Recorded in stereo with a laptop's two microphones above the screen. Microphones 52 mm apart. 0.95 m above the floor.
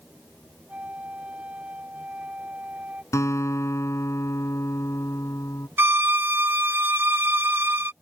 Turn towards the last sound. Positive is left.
turn(degrees=-45)  # may be behind; listen again after turning